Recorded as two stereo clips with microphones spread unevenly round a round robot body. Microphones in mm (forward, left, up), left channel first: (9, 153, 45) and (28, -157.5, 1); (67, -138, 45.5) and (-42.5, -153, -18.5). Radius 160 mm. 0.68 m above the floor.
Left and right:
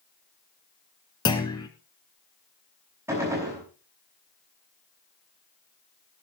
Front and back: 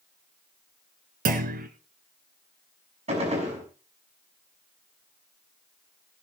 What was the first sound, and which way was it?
A clunk, 165° left.